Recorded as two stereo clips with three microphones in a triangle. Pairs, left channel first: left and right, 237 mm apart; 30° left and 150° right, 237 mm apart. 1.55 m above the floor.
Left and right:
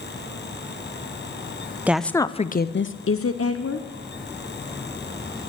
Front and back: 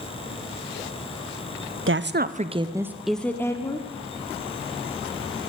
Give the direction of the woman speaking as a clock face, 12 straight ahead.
6 o'clock.